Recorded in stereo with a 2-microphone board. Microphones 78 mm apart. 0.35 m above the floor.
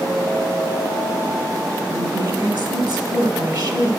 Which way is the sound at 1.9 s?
60° right (ahead or behind).